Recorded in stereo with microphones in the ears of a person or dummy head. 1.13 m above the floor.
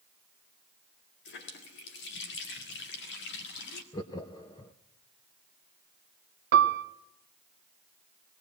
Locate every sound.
1.2 s a running tap: 60° left (ahead or behind), 2.5 m
3.9 s laughter: 20° left (ahead or behind), 0.8 m
6.5 s a piano: 55° right (ahead or behind), 1.0 m